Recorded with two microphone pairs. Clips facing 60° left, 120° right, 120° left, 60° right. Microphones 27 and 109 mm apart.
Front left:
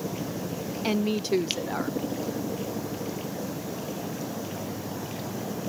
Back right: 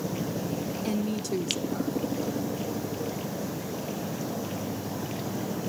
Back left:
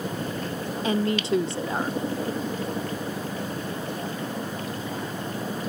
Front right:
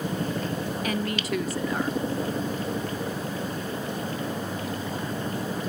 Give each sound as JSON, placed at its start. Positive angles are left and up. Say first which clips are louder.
{"t": 0.8, "sound": "a woman speaking", "louder": "front left 6 dB, back left 7 dB", "azimuth_deg": 70, "distance_m": 0.9}